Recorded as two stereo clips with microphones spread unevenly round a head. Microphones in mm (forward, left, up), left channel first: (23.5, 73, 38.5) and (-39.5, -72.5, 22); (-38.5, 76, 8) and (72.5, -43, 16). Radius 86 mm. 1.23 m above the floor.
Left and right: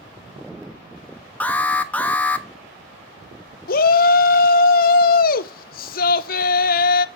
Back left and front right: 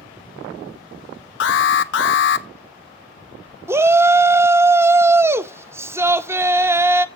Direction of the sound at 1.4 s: 145° left.